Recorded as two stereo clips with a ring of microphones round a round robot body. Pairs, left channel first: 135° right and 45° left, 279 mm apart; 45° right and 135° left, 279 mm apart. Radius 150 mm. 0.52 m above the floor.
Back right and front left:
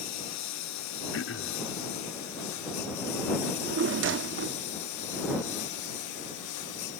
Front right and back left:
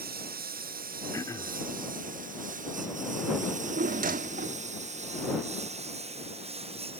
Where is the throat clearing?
120° right.